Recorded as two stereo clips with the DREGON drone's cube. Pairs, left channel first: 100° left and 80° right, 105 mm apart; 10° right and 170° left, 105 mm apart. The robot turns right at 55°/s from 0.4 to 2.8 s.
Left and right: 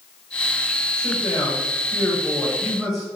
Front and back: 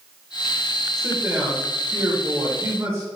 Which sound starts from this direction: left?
A man speaking, at 1.0 s.